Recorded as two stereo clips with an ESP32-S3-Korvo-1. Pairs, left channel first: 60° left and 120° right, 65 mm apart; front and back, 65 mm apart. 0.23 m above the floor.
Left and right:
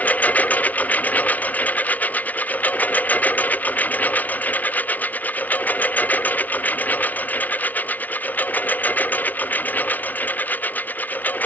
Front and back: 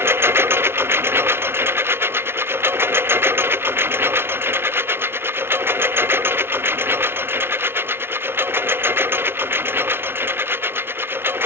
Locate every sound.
0.0 s a lawn mower: 125° left